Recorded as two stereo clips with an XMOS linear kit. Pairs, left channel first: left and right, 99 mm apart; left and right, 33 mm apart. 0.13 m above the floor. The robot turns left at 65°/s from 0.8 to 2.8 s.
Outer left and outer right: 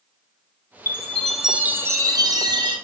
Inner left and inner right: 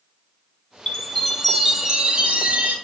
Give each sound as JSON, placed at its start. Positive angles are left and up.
{"t": 0.9, "sound": "a chime", "azimuth_deg": 30, "distance_m": 1.5}